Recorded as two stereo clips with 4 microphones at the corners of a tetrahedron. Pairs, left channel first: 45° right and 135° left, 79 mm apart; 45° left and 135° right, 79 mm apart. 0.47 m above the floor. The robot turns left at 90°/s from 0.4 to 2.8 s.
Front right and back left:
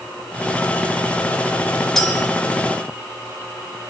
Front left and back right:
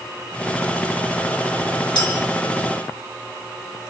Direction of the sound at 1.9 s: 40° left.